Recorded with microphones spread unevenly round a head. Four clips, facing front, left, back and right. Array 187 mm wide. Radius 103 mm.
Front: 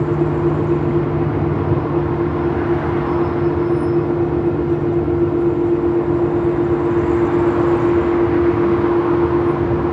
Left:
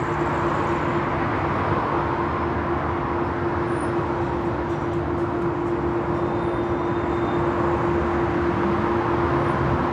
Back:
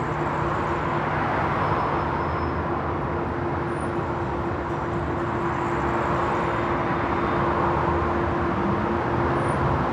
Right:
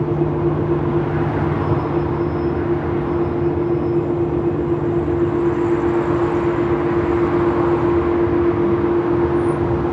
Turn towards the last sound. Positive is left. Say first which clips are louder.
# right 4 dB, front 9 dB
turn(degrees=-35)